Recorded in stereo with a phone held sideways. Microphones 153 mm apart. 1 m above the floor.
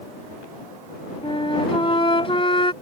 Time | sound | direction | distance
1.2 | a flute | 35° left (ahead or behind) | ?